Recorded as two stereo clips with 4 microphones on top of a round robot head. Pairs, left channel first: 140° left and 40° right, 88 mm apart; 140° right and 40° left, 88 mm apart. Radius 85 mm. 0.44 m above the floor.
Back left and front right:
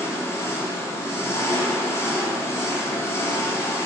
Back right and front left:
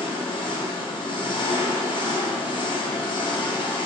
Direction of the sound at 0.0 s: 160° right.